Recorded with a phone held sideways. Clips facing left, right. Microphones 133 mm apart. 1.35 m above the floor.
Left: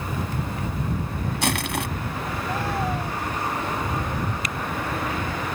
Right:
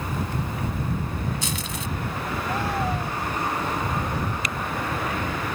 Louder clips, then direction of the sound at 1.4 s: Left 6 dB; 65° left (ahead or behind).